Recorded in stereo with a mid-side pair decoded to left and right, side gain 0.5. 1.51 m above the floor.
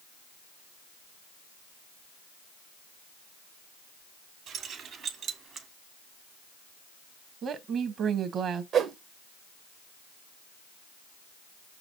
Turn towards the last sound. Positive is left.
turn(degrees=-65)